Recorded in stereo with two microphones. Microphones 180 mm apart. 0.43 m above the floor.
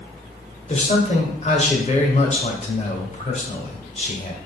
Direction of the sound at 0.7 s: 40° left (ahead or behind).